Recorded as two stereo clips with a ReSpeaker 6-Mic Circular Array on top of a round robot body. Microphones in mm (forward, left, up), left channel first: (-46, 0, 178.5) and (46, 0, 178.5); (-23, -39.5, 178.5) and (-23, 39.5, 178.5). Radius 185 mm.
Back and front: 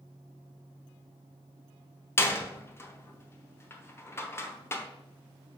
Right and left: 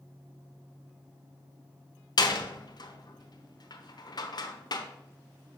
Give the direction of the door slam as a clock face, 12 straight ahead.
4 o'clock.